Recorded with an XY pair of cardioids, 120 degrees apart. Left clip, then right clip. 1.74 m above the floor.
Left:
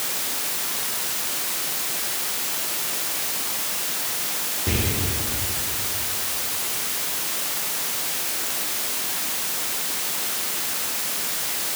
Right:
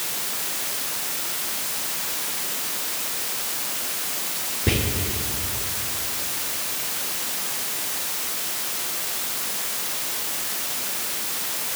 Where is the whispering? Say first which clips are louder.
Right 4 dB; 50° right, 0.9 m.